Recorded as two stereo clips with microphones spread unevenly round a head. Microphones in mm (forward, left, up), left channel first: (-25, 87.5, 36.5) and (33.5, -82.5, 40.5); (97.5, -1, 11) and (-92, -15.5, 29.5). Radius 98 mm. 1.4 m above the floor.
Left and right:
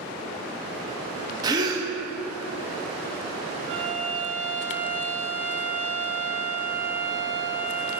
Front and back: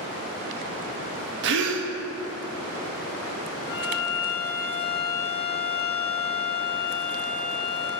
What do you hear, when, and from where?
1.4 s a gasp: 140° right, 0.7 m
3.7 s a violin: 35° right, 1.7 m